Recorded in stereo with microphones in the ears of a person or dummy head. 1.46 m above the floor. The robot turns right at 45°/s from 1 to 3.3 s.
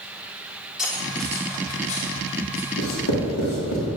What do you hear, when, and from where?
0.8 s cutlery clinking: centre (ahead or behind), 1.8 m; by 2.7 s 60° left (ahead or behind), 1.8 m
2.8 s writing: 70° left (ahead or behind), 2 m; by 3.9 s 85° left, 2 m